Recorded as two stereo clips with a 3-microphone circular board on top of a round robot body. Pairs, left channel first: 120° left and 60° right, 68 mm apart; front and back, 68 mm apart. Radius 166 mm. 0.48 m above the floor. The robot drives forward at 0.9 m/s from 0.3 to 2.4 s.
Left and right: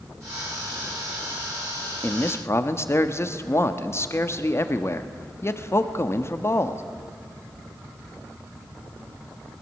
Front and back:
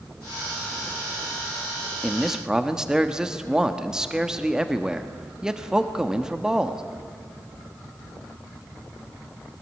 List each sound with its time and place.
2.0 s a man speaking: 80° left, 1.5 m; by 6.8 s 105° left, 1.5 m